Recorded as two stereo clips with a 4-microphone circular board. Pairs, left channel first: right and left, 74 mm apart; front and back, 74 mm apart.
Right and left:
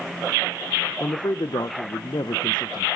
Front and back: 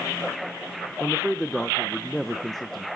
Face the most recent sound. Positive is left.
turn(degrees=-85)